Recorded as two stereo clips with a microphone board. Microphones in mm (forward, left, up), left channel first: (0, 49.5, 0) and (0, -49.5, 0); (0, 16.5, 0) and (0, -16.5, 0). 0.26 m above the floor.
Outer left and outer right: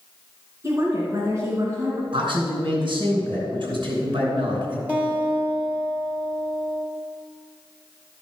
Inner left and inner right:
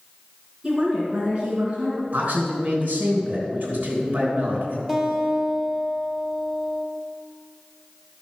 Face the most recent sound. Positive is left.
turn(degrees=-15)  # may be behind; listen again after turning